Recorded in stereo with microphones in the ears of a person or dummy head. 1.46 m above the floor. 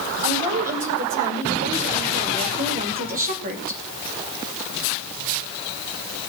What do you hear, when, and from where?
0.2 s a woman speaking: 40° right (ahead or behind), 6 m; by 3.8 s 45° right (ahead or behind), 3 m